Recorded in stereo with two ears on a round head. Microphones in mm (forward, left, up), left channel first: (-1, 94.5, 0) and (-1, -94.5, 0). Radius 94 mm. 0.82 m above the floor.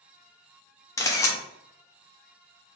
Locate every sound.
1.0 s a camera shutter: 15° left (ahead or behind), 0.6 m